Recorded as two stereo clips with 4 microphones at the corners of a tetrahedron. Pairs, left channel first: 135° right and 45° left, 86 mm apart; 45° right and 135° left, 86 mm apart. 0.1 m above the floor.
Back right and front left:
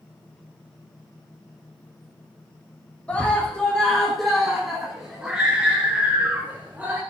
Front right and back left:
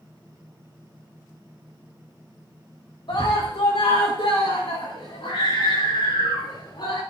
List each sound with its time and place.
3.1 s a scream: 60° right, 5.5 m; by 7.0 s 25° right, 7.5 m